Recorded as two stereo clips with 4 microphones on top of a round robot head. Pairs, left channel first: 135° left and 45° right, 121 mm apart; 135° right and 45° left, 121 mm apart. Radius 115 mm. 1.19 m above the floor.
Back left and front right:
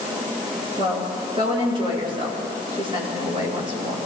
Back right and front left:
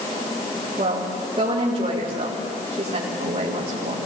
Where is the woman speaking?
Straight ahead, 4 m.